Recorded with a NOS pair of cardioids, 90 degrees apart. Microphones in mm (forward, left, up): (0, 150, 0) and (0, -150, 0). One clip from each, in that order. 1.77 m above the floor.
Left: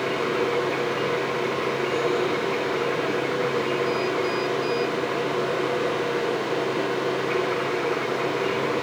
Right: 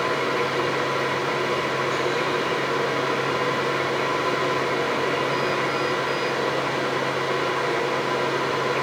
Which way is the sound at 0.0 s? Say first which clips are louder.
Right 1 dB; 60° right.